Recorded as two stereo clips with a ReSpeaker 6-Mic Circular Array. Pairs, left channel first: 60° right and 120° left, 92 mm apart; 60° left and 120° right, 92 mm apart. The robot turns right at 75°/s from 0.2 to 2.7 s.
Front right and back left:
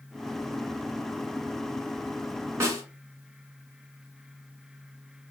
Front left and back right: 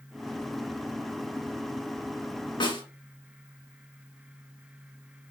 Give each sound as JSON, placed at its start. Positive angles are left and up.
{"t": 2.6, "sound": "a snare drum", "azimuth_deg": 65, "distance_m": 1.6}